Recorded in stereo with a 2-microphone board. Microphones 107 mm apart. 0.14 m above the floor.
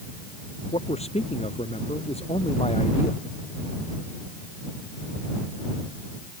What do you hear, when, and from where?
0.7 s a man speaking: 75° left (ahead or behind)